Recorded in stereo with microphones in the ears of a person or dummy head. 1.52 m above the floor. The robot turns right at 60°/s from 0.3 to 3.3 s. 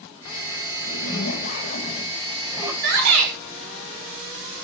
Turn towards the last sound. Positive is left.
turn(degrees=-85)